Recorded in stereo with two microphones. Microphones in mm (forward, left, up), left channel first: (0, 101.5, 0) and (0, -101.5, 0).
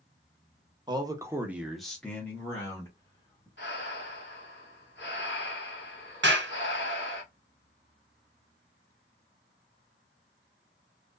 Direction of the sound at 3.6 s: 60° left (ahead or behind).